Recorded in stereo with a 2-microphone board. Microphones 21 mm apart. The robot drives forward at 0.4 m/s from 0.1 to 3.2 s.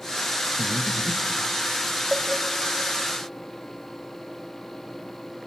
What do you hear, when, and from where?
0.6 s breathing: 70° right (ahead or behind), 1.0 m; by 1.4 s 60° right (ahead or behind), 1.1 m
2.1 s a cowbell: 25° right (ahead or behind), 1.4 m